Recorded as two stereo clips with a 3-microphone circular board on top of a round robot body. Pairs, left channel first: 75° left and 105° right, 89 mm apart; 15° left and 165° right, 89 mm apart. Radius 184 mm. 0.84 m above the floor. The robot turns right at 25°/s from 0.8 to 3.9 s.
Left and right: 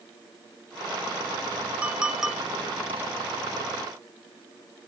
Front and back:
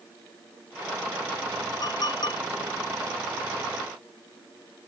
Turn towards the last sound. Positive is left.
turn(degrees=20)